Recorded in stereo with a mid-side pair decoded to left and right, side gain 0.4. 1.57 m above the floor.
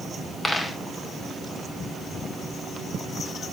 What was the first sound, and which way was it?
A dropped coin, 15° left.